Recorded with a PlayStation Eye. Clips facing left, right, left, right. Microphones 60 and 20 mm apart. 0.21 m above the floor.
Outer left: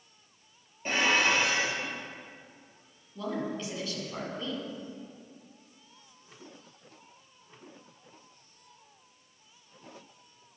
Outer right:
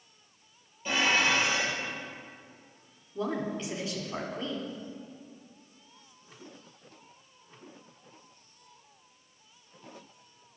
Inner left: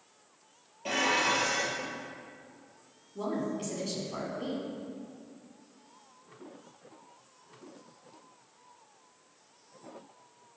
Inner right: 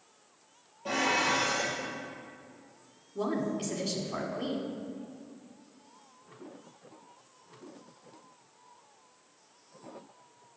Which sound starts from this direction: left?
Dishes clattering, at 0.8 s.